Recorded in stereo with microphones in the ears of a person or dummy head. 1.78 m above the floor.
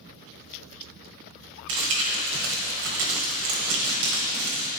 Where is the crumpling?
75° right (ahead or behind), 1.3 m.